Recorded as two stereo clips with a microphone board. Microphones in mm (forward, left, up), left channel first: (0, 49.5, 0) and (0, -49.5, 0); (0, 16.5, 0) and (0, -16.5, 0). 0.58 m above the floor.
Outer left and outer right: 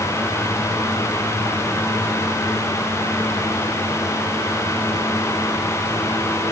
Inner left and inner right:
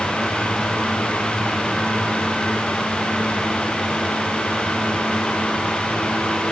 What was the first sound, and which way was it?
Only background noise.